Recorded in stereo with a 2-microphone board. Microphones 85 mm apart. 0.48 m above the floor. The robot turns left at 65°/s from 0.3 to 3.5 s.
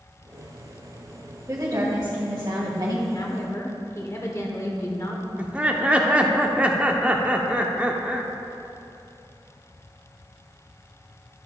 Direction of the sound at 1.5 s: 30° right.